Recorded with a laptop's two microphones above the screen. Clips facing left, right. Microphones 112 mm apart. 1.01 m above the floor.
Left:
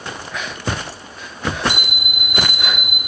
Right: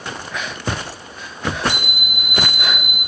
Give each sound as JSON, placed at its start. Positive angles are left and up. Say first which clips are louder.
{"t": 1.7, "sound": "an alarm clock", "louder": "even", "side_deg": 0, "distance_m": 1.0}